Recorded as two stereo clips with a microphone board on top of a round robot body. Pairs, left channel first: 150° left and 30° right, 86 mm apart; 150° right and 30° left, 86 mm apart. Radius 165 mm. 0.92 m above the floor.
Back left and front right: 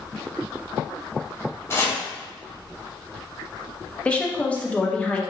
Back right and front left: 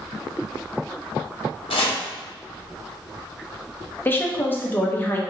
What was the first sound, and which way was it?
Chopping, 150° right.